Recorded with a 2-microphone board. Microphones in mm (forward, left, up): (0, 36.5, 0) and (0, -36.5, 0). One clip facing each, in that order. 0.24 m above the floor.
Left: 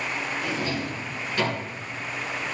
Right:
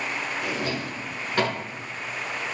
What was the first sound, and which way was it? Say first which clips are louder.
A drawer: even; 70° right (ahead or behind).